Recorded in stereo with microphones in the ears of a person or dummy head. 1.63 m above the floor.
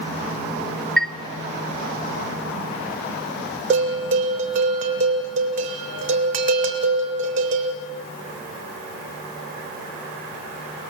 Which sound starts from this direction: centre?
A chime, at 1.0 s.